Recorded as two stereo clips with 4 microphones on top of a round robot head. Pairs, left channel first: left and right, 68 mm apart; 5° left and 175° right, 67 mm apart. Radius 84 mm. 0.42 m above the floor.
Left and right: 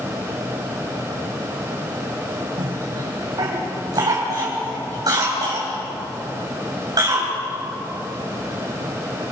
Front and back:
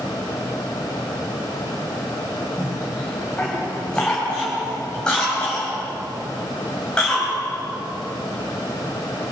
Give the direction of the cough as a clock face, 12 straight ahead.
2 o'clock.